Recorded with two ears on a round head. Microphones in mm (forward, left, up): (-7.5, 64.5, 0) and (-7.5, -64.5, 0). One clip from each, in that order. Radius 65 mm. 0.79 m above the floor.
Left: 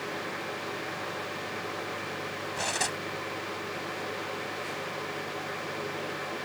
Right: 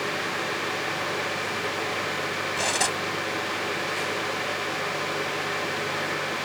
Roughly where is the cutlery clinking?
Centre.